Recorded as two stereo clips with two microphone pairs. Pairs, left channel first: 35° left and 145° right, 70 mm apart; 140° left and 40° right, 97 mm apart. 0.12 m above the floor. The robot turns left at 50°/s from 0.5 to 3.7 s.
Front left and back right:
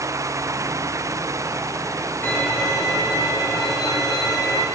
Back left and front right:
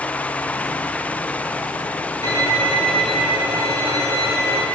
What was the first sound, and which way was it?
A violin, 90° left.